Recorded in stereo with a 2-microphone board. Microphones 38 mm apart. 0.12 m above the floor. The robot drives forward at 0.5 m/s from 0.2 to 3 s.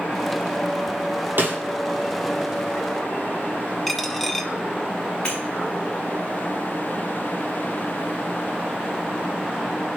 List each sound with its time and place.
1.4 s a snare drum: 55° right (ahead or behind), 4.5 m
3.9 s a dropped coin: 5° left (ahead or behind), 1.5 m
5.2 s breaking glass: 25° left (ahead or behind), 6.5 m